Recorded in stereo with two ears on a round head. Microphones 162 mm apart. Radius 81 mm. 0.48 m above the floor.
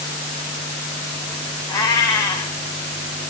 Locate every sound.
1.7 s a cat meowing: 25° left (ahead or behind), 1.7 m